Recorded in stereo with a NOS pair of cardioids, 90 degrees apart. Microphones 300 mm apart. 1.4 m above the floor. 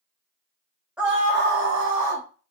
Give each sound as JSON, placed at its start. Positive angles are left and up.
{"t": 1.0, "sound": "a scream", "azimuth_deg": -5, "distance_m": 0.6}